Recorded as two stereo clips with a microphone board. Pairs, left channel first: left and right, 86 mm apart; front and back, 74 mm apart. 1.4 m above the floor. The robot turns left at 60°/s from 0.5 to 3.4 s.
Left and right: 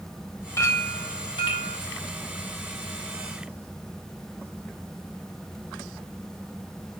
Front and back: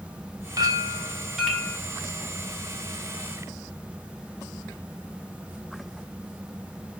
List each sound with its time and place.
0.6 s a clink: 145° left, 2.5 m; by 1.8 s 70° left, 2.5 m